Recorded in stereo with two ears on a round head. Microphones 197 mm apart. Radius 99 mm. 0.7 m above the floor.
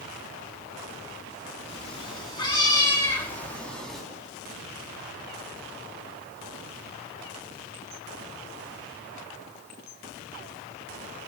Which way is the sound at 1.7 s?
30° left (ahead or behind).